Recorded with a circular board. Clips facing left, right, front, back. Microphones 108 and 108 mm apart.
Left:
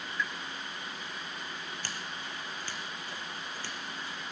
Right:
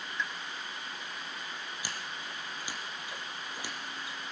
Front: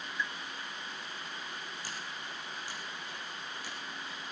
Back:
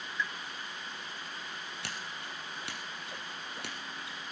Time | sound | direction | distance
0.2 | a pop | 55° right | 1.1 m
1.8 | scissors | 165° right | 3.5 m